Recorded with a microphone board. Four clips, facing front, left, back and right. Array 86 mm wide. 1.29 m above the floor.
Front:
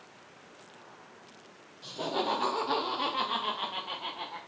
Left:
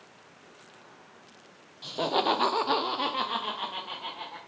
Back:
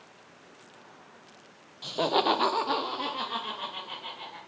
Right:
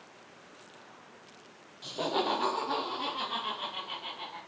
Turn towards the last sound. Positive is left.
turn(degrees=35)